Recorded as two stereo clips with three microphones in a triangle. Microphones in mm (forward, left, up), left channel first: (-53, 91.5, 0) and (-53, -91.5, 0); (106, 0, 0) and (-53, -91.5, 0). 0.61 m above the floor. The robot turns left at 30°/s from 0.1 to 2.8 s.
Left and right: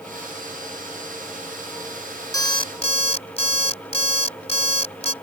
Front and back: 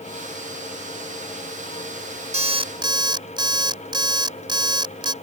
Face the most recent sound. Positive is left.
turn(degrees=145)